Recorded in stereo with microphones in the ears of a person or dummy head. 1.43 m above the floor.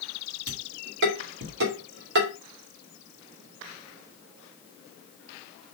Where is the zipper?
No zipper in this recording.